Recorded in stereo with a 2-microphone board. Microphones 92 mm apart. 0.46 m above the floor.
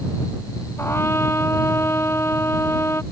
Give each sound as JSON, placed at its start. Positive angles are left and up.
{"t": 0.8, "sound": "a trumpet", "side_deg": 25}